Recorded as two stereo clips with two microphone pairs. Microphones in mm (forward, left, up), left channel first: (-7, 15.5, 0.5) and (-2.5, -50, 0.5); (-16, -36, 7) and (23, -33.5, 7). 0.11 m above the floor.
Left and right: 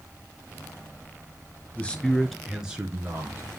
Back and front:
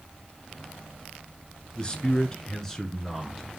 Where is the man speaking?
145° left, 1.5 m; by 3.5 s 90° right, 1.6 m.